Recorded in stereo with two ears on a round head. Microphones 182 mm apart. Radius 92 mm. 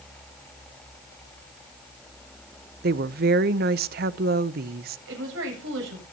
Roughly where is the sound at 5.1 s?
Right.